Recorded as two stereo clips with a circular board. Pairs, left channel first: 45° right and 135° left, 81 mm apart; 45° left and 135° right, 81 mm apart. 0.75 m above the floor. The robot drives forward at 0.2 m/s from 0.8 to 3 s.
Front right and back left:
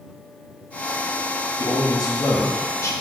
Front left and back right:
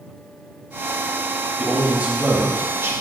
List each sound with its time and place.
1.6 s a man speaking: 60° right, 0.7 m; by 2.9 s 85° right, 0.7 m